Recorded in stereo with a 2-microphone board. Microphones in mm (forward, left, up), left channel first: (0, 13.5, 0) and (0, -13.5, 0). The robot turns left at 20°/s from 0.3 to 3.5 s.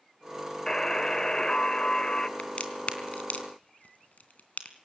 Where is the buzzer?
20° left (ahead or behind), 1.5 m; by 2.3 s 25° left (ahead or behind), 1.5 m.